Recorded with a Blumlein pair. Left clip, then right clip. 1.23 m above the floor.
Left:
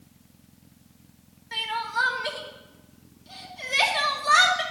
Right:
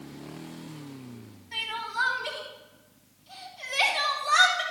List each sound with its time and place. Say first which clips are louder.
1.5 s crying: left 4 dB; 35° left, 2 m